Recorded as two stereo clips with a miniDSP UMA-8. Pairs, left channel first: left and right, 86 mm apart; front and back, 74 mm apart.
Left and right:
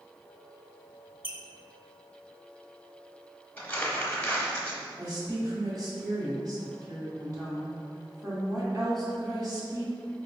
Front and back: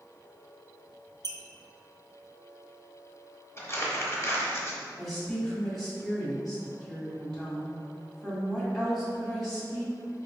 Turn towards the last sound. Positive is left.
turn(degrees=-80)